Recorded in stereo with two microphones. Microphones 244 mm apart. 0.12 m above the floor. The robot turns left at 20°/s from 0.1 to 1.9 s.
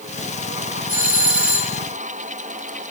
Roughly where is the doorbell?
Right.